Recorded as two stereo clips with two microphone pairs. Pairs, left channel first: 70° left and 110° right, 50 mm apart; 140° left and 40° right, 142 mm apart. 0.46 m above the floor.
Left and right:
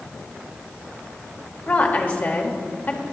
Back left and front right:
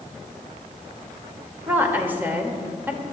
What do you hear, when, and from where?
1.7 s a woman speaking: 30° left, 1.1 m